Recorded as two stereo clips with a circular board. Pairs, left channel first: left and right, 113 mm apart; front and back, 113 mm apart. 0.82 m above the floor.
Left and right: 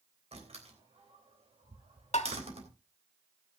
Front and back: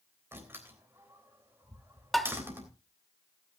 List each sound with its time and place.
0.3 s a door slam: 110° right, 3.5 m
2.1 s tapping: 90° left, 1.4 m